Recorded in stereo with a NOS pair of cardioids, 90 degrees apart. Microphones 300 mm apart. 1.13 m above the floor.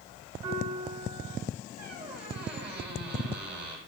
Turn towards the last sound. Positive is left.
turn(degrees=-35)